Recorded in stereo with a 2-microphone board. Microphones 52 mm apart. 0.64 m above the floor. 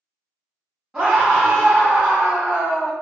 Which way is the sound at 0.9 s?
5° right (ahead or behind).